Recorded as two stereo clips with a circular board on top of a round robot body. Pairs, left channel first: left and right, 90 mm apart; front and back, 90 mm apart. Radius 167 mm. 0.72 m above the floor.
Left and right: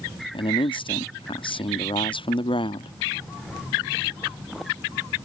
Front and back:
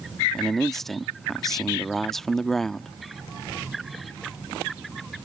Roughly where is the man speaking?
Left.